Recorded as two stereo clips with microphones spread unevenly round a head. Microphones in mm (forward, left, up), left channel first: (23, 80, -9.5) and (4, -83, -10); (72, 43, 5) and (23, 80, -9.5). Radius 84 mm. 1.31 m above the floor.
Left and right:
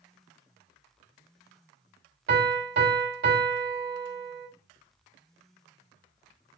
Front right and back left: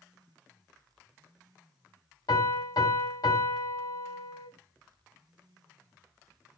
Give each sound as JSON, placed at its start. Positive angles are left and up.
{"t": 2.3, "sound": "a piano", "azimuth_deg": -70, "distance_m": 2.5}